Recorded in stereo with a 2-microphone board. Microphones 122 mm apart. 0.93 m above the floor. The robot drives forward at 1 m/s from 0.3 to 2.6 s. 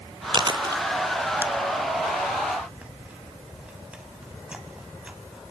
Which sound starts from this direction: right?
Chewing, at 0.3 s.